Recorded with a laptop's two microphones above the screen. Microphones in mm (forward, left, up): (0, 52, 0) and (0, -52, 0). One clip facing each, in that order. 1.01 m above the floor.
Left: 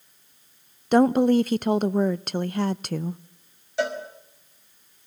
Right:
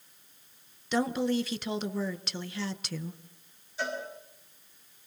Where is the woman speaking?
50° left (ahead or behind), 0.5 m.